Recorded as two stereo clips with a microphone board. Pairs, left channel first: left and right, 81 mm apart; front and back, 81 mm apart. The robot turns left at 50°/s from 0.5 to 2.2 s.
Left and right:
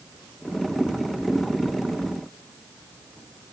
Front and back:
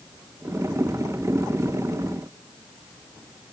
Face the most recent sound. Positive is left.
No sound to turn to.